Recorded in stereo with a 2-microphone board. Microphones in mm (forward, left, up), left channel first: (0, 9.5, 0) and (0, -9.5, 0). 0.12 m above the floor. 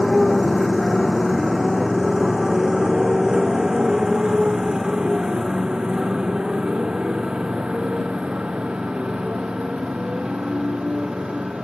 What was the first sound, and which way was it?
A motorcycle, 10° left (ahead or behind).